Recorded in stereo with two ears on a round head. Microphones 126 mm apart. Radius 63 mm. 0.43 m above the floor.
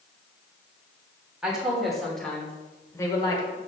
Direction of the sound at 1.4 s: 5° right (ahead or behind).